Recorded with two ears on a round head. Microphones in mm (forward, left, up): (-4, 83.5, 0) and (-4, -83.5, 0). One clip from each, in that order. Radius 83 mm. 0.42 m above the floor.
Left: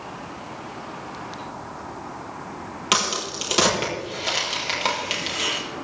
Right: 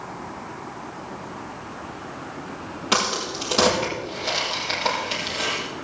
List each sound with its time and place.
2.9 s a crack: 65° left (ahead or behind), 6 m